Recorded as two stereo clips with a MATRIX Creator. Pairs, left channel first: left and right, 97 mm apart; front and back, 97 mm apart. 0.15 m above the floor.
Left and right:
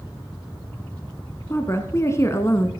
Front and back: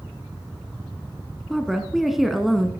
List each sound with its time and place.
1.5 s a woman speaking: 95° left, 1.2 m